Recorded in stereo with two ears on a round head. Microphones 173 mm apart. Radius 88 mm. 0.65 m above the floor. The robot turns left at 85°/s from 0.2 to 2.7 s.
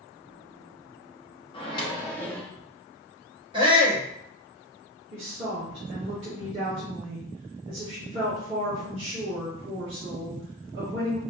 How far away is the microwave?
About 0.7 m.